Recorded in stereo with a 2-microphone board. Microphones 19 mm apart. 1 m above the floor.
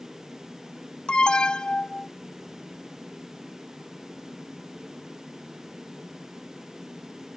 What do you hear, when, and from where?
1.1 s an alarm: 60° left (ahead or behind)